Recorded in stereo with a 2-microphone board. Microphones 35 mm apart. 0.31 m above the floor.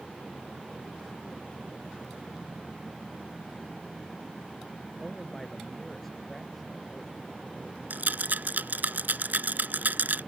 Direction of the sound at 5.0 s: 10° left (ahead or behind).